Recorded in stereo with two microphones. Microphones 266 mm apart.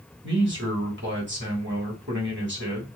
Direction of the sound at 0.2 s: 45° right (ahead or behind).